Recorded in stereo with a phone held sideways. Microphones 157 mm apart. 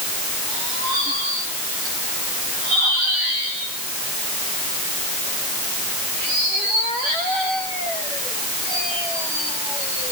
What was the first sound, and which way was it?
Only background noise.